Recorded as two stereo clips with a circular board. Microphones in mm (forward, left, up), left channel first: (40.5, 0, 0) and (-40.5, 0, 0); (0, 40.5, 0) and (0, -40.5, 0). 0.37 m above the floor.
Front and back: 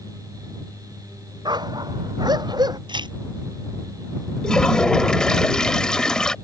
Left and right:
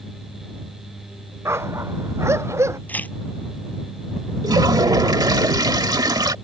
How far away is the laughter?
No laughter in this recording.